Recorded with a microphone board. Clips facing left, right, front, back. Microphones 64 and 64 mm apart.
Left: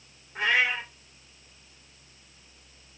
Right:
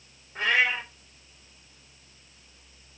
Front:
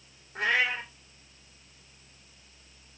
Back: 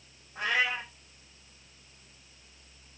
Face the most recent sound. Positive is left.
turn(degrees=10)